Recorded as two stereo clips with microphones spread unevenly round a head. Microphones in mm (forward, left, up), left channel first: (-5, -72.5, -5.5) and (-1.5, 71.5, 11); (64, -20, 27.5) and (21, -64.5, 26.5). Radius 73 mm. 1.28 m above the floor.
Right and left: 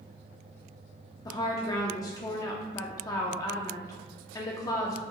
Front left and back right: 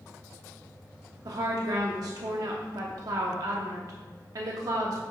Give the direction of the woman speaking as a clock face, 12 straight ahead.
5 o'clock.